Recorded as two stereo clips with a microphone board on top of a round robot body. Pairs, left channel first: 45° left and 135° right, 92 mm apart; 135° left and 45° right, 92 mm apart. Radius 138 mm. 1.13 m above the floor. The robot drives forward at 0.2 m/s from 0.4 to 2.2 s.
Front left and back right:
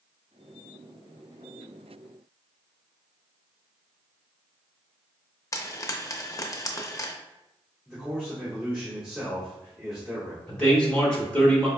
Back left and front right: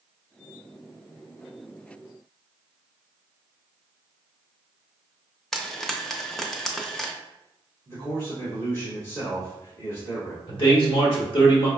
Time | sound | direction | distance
5.5 | frying | 50° left | 0.7 m
7.8 | a man speaking | 140° left | 1.9 m
10.5 | a man speaking | 125° left | 1.4 m